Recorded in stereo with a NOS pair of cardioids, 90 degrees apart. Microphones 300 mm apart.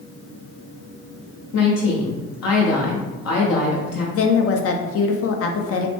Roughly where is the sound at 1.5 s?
Ahead left.